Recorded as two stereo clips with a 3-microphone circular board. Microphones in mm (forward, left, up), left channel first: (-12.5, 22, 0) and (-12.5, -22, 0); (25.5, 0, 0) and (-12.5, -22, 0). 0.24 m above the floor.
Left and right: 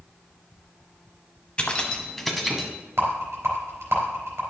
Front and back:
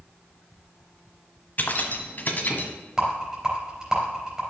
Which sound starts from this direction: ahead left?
Keys jangling, at 1.6 s.